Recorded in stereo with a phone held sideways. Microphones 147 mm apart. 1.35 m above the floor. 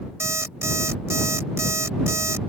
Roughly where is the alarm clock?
Centre.